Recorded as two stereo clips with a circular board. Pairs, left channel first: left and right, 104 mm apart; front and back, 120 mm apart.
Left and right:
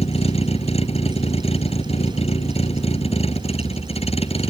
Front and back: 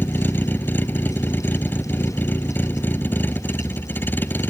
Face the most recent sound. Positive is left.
turn(degrees=75)